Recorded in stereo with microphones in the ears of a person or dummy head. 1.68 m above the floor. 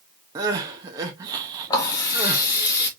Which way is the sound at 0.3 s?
20° right (ahead or behind).